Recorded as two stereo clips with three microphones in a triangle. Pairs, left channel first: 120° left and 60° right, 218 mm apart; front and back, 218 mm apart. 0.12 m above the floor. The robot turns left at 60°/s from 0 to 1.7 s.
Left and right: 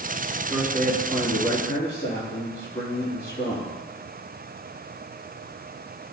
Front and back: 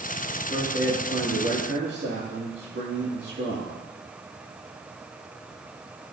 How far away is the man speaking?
About 3 m.